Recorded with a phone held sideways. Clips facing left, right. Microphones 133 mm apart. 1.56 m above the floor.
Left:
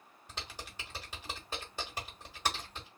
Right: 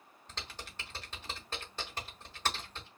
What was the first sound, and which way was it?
Typing on a keyboard, 10° left (ahead or behind).